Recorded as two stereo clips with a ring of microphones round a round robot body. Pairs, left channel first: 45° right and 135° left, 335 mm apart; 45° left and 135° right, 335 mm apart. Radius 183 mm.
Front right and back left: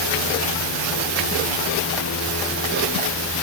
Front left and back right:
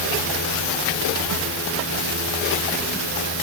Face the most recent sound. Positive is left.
No sound to turn to.